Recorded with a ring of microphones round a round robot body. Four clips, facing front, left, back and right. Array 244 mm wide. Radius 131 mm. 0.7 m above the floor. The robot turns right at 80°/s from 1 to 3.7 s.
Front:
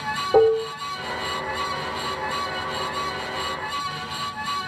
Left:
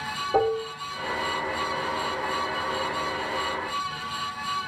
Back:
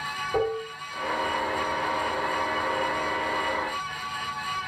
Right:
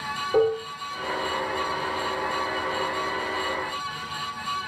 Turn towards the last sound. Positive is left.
turn(degrees=-145)